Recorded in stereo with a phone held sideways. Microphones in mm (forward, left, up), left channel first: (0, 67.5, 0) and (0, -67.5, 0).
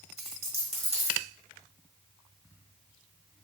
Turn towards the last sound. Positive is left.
turn(degrees=-50)  # may be behind; listen again after turning